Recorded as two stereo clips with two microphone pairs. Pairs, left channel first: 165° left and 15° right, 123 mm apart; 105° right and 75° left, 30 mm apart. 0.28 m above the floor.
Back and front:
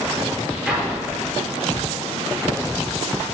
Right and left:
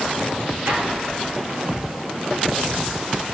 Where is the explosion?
70° left, 4.5 m.